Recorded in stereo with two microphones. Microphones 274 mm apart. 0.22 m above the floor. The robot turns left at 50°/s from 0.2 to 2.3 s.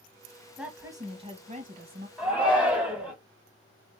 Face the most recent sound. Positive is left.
turn(degrees=-5)  # may be behind; listen again after turning